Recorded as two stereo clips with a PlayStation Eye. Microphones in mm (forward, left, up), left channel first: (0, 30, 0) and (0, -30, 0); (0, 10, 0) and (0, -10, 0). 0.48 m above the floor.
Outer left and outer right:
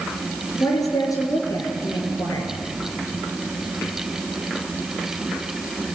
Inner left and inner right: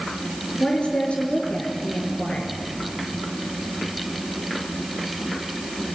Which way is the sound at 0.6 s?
75° left (ahead or behind).